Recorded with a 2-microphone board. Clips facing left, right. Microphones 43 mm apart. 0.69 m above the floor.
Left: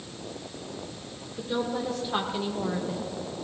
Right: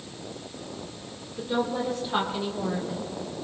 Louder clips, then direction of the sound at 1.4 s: Right 2 dB; 5° right (ahead or behind).